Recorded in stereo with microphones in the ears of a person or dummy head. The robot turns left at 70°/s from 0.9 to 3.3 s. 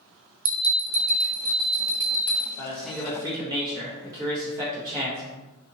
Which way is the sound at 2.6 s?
30° left.